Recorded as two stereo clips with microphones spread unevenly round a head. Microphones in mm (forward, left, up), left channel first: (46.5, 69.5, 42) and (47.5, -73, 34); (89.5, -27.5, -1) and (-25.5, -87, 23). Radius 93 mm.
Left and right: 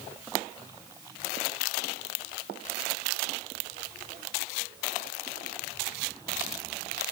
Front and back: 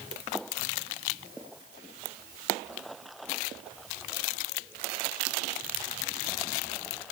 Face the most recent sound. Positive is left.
No sound to turn to.